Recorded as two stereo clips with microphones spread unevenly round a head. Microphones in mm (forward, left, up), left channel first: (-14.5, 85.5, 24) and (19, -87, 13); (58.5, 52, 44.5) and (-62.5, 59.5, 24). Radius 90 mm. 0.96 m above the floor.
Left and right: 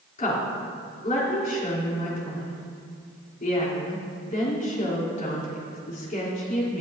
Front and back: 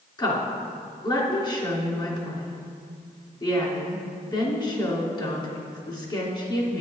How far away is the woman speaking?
About 3 m.